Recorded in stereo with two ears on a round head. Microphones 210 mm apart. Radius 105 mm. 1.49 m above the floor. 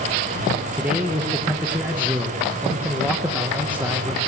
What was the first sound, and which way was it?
A man speaking, 5° right (ahead or behind).